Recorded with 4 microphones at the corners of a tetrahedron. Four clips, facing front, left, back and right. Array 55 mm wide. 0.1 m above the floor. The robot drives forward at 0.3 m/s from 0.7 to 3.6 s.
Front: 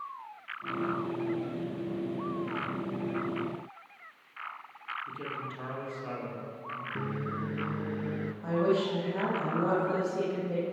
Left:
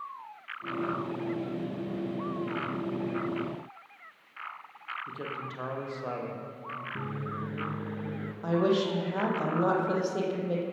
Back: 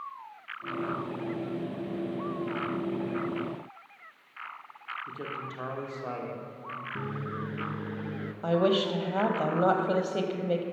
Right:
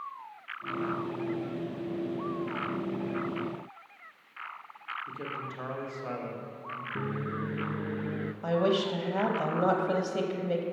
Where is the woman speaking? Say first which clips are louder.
Left 1 dB, back 3 dB; straight behind, 2.5 m.